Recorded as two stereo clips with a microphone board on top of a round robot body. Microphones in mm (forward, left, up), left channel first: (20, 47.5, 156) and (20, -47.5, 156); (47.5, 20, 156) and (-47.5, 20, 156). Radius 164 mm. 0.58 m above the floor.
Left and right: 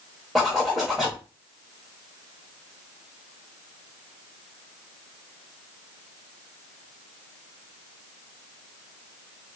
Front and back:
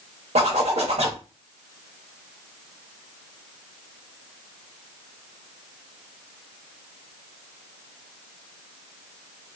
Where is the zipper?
175° right, 0.6 m.